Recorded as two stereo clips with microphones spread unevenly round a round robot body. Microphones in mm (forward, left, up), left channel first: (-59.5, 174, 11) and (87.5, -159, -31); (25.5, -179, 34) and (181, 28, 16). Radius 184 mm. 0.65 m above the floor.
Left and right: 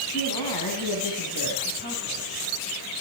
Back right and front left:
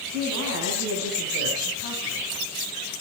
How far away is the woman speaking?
About 5.5 m.